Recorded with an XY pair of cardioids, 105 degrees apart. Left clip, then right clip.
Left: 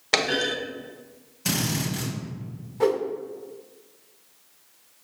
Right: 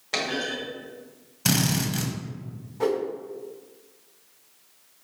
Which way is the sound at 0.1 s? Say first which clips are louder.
Left 5 dB; 60° left.